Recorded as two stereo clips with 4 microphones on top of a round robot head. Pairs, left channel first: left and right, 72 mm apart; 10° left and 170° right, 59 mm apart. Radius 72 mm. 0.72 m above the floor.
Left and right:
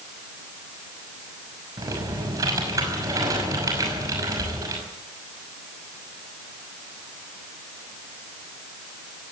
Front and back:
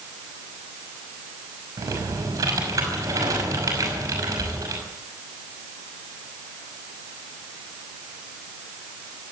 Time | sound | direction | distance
1.8 | typing on a keyboard | 135° right | 5.5 m